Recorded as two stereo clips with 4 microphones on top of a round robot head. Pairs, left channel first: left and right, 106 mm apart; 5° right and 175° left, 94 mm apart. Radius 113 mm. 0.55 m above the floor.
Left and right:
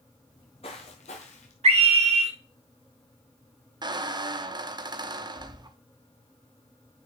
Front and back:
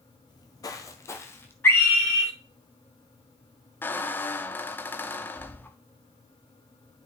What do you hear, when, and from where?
0.3 s footsteps: 25° left, 0.7 m; by 1.5 s 60° left, 1.1 m
1.6 s a scream: 75° right, 3 m
3.8 s a squeak: 65° right, 0.8 m